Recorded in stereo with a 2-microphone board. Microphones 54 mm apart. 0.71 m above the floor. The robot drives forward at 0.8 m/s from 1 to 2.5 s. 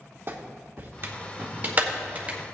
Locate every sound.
0.3 s a clap: 45° right (ahead or behind), 1.5 m; by 2.5 s 25° right (ahead or behind), 2.5 m